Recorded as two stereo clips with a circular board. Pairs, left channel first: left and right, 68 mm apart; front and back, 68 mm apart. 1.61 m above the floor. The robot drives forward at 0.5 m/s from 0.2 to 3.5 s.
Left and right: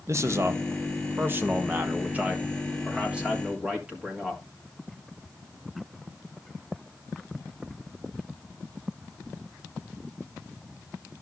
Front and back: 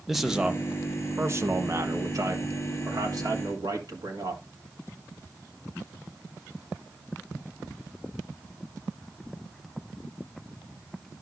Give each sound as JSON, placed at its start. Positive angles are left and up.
{"t": 0.1, "sound": "a man speaking", "azimuth_deg": -95, "distance_m": 0.7}